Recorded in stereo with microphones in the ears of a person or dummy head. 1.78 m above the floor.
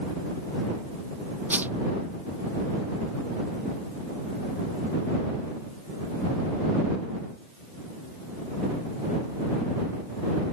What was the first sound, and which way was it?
A whoosh, 10° right (ahead or behind).